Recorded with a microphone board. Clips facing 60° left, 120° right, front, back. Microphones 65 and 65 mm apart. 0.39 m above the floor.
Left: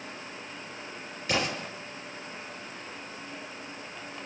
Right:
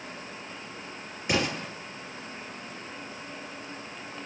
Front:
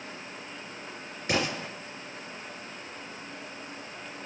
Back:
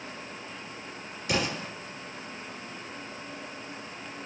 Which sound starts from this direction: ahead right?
An explosion, at 1.3 s.